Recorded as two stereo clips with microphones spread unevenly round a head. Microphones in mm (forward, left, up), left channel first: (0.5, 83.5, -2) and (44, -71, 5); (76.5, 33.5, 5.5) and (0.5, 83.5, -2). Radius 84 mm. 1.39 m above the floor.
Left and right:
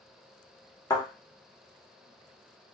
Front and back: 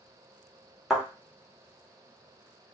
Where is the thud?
55° left, 1.1 m.